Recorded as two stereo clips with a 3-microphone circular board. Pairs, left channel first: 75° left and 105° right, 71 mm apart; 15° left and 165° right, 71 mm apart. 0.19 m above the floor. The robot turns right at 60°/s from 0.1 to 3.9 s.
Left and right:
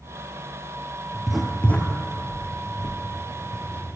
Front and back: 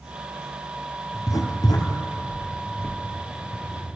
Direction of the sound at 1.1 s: 30° right.